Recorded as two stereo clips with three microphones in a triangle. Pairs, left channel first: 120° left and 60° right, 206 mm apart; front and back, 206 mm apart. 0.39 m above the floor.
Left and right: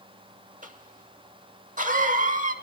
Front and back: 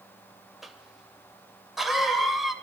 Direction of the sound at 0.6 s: 90° right.